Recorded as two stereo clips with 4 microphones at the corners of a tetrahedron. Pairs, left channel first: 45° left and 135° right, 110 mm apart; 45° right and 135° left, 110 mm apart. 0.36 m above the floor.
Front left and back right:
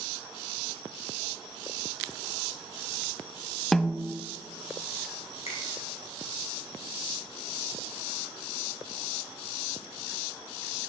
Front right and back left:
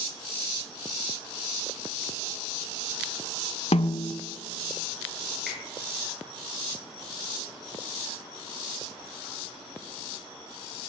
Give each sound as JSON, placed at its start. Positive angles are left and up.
{"t": 3.7, "sound": "a snare drum", "azimuth_deg": -40, "distance_m": 0.6}
{"t": 5.5, "sound": "a finger snap", "azimuth_deg": 45, "distance_m": 6.5}